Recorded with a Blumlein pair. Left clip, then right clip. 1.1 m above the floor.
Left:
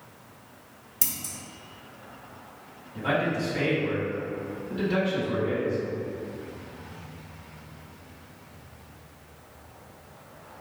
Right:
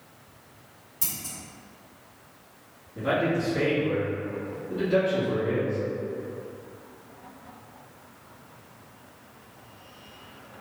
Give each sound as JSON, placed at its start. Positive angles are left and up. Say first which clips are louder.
{"t": 1.0, "sound": "scissors", "louder": "left 2 dB", "azimuth_deg": 25, "distance_m": 0.8}
{"t": 3.0, "sound": "a man speaking", "louder": "right 1 dB", "azimuth_deg": 65, "distance_m": 1.8}